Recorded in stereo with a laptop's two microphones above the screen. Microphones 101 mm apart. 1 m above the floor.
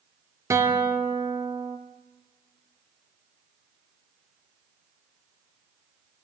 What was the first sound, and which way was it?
A guitar, 30° right (ahead or behind).